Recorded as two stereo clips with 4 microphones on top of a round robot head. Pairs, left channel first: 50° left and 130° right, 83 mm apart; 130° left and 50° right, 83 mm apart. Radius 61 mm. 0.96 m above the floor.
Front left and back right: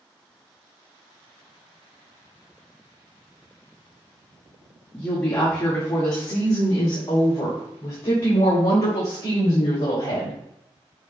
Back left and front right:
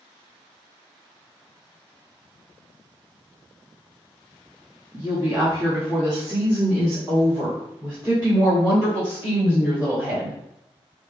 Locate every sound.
4.9 s a woman speaking: 20° right, 1.6 m; by 10.4 s 25° left, 4 m